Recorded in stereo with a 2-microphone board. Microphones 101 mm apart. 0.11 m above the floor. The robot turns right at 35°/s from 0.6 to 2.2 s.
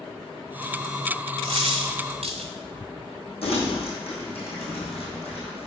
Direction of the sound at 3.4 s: 70° left (ahead or behind).